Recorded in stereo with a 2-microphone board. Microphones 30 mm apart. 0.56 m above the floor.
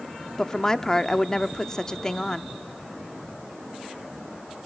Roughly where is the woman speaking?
Left.